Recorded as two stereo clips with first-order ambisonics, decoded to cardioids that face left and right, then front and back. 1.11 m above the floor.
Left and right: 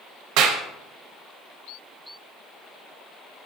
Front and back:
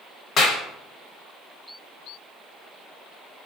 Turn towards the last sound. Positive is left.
turn(degrees=-60)